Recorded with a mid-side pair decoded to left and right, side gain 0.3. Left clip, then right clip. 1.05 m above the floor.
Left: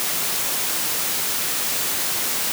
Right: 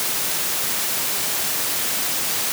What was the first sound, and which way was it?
Only background noise.